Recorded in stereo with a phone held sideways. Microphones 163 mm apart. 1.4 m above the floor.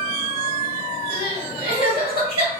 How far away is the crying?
About 1.7 m.